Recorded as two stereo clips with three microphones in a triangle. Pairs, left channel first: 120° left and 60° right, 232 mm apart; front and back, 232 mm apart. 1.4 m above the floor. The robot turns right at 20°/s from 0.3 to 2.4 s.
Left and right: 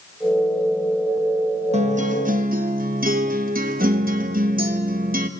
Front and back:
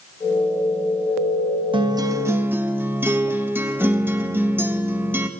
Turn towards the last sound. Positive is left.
turn(degrees=-100)